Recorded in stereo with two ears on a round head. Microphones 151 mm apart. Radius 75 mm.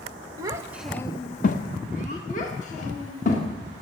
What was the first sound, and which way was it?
A child speaking, 20° right (ahead or behind).